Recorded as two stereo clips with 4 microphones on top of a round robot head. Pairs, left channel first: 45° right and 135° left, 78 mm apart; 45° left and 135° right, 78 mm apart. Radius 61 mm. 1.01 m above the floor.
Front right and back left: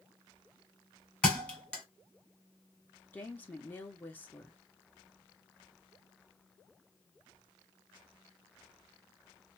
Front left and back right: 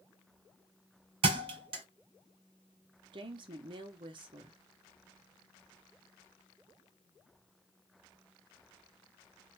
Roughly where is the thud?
Behind right.